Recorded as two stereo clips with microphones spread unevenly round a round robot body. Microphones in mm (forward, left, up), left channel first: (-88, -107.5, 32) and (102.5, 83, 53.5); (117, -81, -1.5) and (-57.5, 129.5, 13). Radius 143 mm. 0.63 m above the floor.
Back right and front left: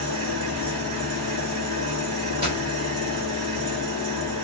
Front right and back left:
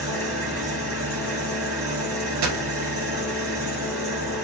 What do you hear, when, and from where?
0.0 s an engine running: 50° left, 1.6 m
2.4 s a dropped coin: 115° left, 1.3 m